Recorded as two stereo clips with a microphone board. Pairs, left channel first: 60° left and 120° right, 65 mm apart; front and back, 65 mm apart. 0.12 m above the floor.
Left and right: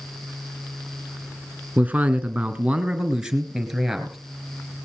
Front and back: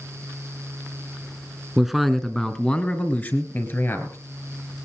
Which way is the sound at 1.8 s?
100° right.